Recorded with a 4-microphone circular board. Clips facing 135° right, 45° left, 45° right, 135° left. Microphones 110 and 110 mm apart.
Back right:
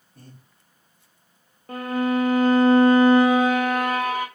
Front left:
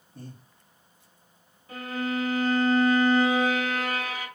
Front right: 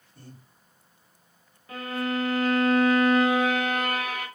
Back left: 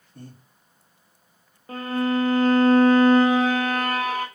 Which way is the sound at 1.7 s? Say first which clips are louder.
Back right 7 dB, back left 6 dB; 170° right.